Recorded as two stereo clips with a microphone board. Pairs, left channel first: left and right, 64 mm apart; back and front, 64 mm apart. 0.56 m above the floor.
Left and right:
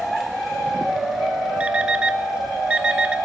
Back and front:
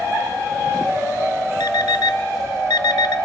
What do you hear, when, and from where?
1.6 s an alarm clock: 165° right, 1.0 m